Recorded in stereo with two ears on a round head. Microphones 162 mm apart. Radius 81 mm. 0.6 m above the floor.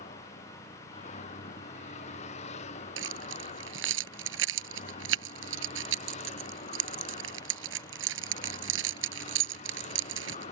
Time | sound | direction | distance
0.0 | a vehicle | 40° left (ahead or behind) | ?
3.0 | keys jangling | 80° right | ?